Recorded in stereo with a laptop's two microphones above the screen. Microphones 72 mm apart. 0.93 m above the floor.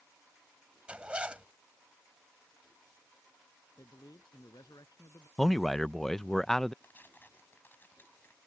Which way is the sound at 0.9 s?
15° right (ahead or behind).